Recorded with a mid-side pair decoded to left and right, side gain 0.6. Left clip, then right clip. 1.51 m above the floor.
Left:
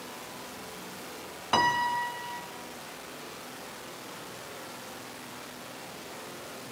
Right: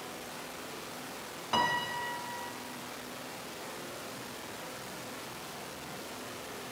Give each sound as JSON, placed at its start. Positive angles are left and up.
{"t": 1.5, "sound": "a piano", "azimuth_deg": 30, "distance_m": 0.6}